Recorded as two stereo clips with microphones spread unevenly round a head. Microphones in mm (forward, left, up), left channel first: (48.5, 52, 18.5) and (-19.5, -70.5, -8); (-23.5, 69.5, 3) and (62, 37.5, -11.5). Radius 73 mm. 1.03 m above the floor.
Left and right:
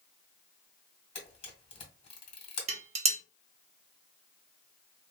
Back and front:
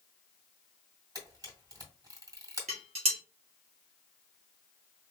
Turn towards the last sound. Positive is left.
turn(degrees=-70)